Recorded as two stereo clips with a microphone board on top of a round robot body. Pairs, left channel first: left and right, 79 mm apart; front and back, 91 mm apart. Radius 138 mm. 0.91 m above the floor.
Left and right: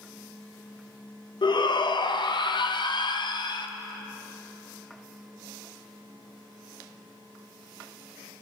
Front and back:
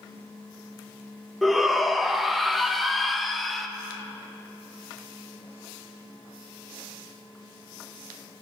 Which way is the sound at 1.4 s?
90° left.